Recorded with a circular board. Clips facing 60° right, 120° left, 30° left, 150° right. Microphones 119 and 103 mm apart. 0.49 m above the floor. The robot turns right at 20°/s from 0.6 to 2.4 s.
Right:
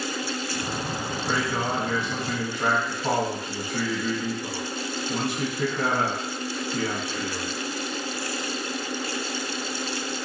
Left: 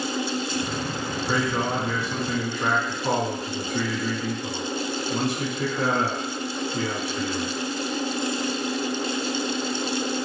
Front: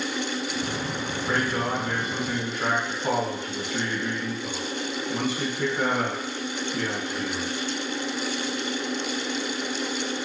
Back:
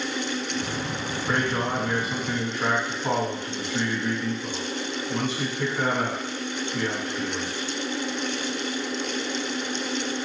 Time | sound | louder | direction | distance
1.3 | a man speaking | left 2 dB, back 1 dB | 65° right | 2.5 m